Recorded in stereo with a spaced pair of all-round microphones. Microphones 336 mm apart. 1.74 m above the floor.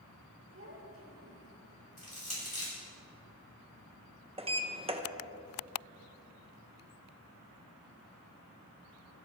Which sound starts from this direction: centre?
A sliding door, at 4.4 s.